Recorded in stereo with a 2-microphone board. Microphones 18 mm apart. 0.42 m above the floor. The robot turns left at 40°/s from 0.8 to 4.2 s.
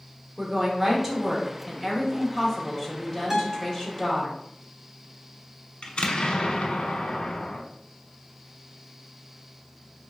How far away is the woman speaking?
About 1.1 m.